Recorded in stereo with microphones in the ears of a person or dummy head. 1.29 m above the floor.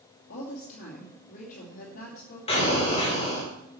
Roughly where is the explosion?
Left.